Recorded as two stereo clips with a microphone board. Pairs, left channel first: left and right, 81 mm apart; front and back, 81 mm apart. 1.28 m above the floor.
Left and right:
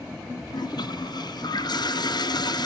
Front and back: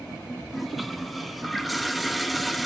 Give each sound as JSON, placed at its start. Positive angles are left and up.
{"t": 0.5, "sound": "a toilet flushing", "azimuth_deg": 90, "distance_m": 0.5}